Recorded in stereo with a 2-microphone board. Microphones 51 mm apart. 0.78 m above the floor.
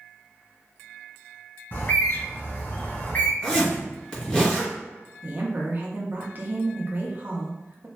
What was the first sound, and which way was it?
A bird, 50° left (ahead or behind).